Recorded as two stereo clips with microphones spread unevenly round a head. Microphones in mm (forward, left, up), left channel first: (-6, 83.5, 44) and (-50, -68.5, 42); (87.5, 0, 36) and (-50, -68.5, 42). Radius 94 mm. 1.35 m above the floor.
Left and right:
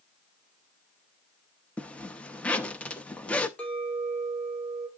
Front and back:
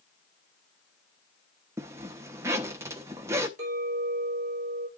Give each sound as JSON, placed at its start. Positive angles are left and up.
{"t": 1.8, "sound": "a zipper", "azimuth_deg": 150, "distance_m": 0.7}
{"t": 3.6, "sound": "a clink", "azimuth_deg": 155, "distance_m": 4.0}